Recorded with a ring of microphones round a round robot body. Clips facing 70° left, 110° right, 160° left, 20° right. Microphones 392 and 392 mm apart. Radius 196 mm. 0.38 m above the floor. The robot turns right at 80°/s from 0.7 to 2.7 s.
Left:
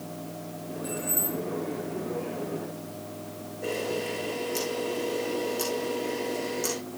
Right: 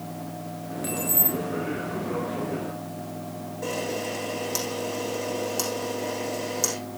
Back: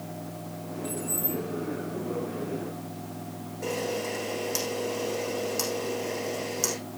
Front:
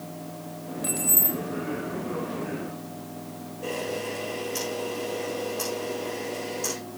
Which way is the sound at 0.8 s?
55° right.